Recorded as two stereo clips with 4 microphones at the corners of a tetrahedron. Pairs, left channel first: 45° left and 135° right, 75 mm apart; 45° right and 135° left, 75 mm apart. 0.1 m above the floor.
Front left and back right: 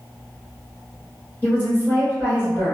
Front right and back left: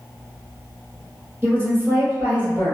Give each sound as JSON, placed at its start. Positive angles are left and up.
{"t": 1.4, "sound": "a woman speaking", "azimuth_deg": 90, "distance_m": 1.5}